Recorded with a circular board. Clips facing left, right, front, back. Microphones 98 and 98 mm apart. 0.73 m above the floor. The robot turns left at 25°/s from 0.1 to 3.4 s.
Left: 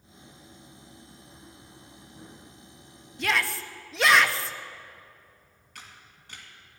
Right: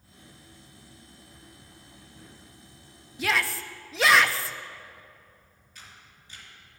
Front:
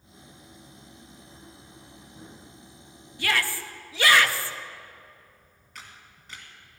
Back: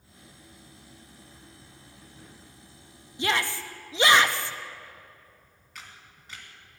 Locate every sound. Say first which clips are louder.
3.2 s a shout: even, back 1 dB; 170° right, 0.5 m; by 4.5 s 175° right, 0.5 m
5.8 s a camera shutter: left 2 dB, even; 90° left, 2.5 m